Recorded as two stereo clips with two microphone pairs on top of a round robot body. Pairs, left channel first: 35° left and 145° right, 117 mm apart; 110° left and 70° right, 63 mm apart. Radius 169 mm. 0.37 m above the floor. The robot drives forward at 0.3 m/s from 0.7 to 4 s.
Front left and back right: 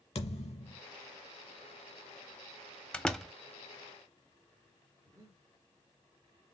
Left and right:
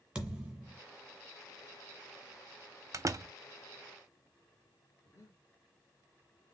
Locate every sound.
0.1 s a thud: 10° left, 1.6 m
2.9 s a door slam: 35° right, 0.7 m; by 3.3 s 45° right, 0.6 m
5.0 s breathing: 155° left, 1.5 m